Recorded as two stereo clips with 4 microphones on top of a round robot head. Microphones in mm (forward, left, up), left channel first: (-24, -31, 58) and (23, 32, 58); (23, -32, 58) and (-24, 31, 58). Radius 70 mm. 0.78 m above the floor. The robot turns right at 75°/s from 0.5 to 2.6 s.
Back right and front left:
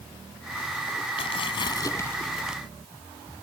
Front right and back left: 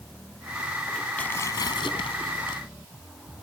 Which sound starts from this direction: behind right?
Tearing paper, at 1.2 s.